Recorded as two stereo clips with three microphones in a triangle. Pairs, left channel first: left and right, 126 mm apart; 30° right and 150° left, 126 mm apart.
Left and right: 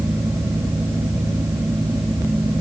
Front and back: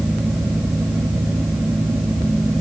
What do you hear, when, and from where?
Only background noise.